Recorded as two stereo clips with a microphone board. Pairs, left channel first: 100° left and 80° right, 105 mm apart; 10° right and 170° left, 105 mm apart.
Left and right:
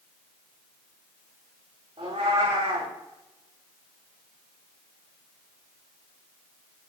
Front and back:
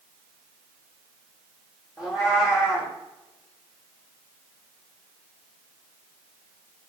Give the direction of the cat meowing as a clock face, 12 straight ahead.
4 o'clock.